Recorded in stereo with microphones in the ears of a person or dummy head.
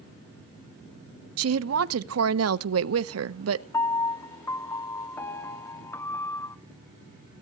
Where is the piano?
15° left (ahead or behind), 0.7 m.